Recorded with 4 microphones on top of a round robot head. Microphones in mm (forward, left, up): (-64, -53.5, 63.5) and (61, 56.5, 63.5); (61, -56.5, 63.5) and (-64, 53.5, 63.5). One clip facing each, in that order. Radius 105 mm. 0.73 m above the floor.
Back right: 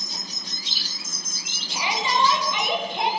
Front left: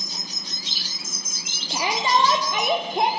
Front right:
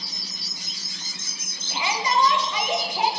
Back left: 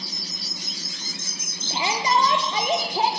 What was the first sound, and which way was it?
A shout, 85° left.